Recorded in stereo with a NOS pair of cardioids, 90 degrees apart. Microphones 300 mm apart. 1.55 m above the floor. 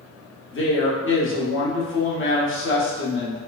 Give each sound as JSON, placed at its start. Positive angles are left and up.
{"t": 0.5, "sound": "a woman speaking", "azimuth_deg": 40, "distance_m": 1.2}